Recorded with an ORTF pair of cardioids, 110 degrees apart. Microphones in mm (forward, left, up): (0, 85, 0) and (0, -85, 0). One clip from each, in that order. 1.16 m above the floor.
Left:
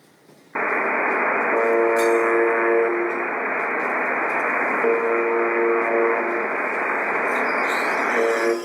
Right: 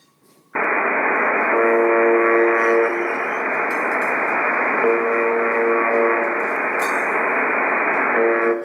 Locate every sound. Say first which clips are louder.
0.6 s a buzzer: right 3 dB; 15° right, 1.4 m